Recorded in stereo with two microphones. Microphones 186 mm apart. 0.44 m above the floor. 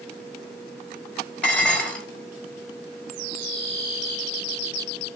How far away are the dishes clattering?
About 1.6 m.